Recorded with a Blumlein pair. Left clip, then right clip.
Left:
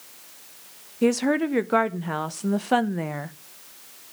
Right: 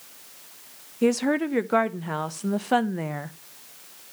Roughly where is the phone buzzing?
I don't hear a phone buzzing.